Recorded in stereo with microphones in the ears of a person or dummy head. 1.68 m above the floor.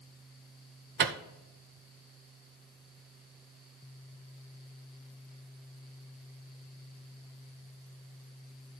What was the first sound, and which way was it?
A microwave, 50° right (ahead or behind).